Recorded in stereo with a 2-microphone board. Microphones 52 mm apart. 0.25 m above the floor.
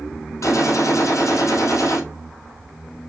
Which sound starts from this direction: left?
A gunshot, at 0.4 s.